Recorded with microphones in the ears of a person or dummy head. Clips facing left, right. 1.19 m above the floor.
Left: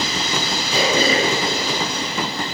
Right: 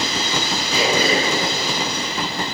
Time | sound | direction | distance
0.7 | throat clearing | 25° left (ahead or behind) | 1.0 m